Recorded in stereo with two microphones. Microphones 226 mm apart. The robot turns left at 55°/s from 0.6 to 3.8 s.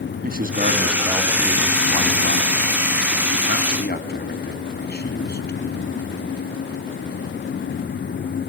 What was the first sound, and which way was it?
A man speaking, 40° right (ahead or behind).